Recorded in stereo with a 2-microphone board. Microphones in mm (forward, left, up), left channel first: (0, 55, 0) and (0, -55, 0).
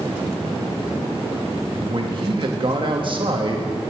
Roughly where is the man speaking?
Right.